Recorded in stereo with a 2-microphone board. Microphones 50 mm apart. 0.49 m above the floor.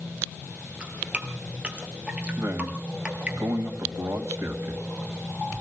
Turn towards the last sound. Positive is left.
turn(degrees=-65)  # may be behind; listen again after turning